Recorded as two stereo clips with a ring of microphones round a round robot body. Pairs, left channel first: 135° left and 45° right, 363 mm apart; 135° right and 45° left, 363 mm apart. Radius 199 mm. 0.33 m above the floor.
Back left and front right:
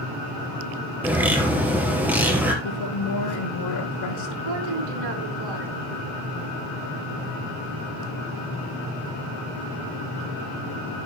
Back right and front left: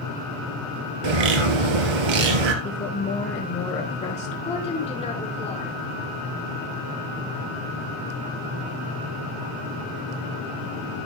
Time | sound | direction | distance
1.0 | a bird | 40° left | 2 m
2.6 | a woman speaking | 155° left | 3.5 m
4.5 | a woman speaking | 60° right | 4 m